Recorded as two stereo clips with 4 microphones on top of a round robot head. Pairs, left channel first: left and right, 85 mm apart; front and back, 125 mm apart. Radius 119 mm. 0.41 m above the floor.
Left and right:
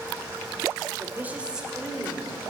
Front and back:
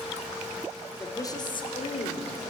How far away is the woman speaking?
About 1.0 m.